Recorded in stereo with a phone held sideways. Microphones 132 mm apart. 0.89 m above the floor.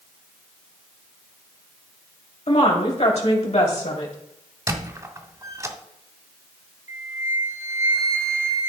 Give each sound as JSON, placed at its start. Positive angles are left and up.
{"t": 2.5, "sound": "a woman speaking", "side_deg": 55, "distance_m": 2.5}
{"t": 4.7, "sound": "a squeak", "side_deg": -25, "distance_m": 1.0}
{"t": 6.9, "sound": "a flute", "side_deg": -20, "distance_m": 0.9}